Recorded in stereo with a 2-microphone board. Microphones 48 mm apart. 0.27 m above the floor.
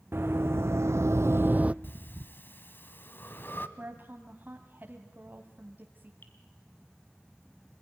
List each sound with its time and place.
0.1 s running footsteps: 55° right (ahead or behind), 1.4 m; by 1.7 s 25° right (ahead or behind), 0.6 m
1.8 s breathing: 45° left (ahead or behind), 1.0 m
3.8 s a woman speaking: 45° right (ahead or behind), 1.7 m
6.2 s dripping: 45° left (ahead or behind), 2.5 m